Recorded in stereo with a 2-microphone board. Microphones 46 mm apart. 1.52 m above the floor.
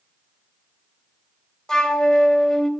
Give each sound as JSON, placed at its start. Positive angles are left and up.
{"t": 1.7, "sound": "a flute", "side_deg": 10, "distance_m": 1.6}